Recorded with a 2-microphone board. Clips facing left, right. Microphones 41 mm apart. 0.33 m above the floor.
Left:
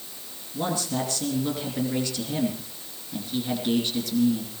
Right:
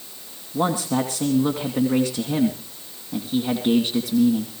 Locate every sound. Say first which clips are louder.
0.5 s a man speaking: right 6 dB; 55° right (ahead or behind), 2.5 m